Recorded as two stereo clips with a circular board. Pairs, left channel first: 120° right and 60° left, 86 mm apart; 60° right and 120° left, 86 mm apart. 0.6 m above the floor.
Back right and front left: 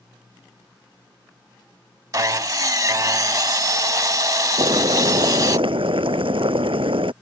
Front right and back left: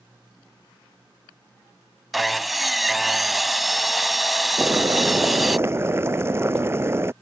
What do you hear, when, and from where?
2.1 s sawing: 30° left
4.6 s boiling: 60° left